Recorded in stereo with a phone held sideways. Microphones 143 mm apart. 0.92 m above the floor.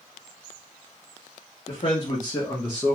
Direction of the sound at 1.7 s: 45° left (ahead or behind).